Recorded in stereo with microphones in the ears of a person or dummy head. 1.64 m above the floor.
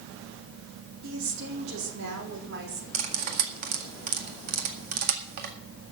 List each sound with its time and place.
1.0 s a woman speaking: 75° right (ahead or behind), 4.5 m; by 2.8 s 60° right (ahead or behind), 4 m
2.9 s cutlery clinking: 55° right (ahead or behind), 1.9 m